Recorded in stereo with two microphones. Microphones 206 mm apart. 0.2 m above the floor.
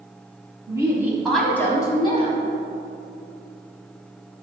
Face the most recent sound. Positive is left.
turn(degrees=30)  # may be behind; listen again after turning